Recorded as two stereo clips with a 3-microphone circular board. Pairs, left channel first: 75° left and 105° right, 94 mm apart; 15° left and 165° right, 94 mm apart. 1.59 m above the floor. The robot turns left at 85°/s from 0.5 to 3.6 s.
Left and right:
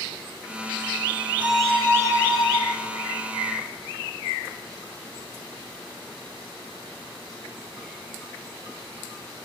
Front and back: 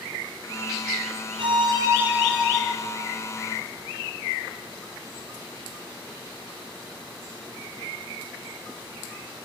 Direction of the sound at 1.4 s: 175° right.